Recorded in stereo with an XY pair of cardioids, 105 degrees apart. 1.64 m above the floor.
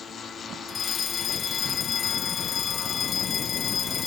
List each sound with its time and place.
0.7 s a fire alarm: 50° left